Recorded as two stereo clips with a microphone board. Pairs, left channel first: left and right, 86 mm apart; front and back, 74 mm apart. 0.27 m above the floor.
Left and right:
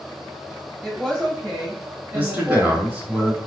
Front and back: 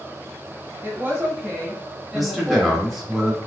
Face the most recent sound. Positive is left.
turn(degrees=-95)